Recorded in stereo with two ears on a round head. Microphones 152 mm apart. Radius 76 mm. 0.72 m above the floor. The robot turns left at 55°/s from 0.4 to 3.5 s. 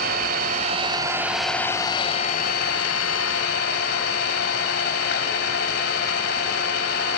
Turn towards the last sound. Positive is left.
turn(degrees=65)